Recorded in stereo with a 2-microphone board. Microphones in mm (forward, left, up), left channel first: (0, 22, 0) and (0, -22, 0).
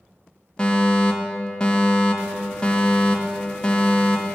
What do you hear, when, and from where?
0.6 s a fire alarm: 20° left (ahead or behind), 2 m